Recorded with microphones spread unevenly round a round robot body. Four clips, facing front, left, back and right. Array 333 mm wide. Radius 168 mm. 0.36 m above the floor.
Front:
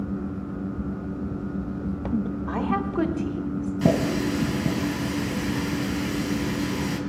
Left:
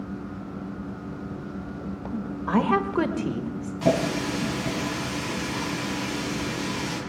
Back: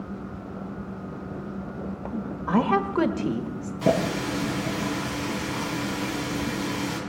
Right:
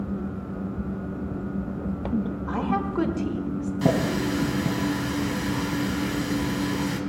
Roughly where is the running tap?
Ahead right.